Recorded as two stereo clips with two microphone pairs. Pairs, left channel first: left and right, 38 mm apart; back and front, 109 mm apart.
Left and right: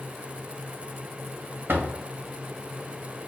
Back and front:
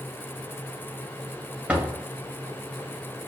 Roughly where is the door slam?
Right.